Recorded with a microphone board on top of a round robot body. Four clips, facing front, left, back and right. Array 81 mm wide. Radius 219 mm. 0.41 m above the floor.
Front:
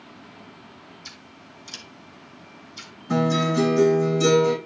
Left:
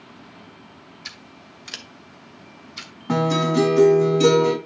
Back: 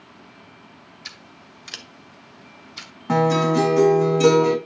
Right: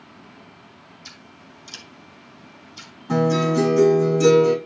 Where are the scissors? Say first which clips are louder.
Left 2 dB, back 1 dB; 135° left, 2.5 m.